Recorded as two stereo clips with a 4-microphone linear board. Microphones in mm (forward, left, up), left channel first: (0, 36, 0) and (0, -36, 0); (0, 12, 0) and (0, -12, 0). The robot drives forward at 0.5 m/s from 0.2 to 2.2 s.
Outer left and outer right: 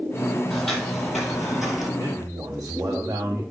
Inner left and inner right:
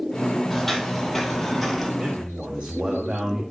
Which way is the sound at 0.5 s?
Centre (ahead or behind).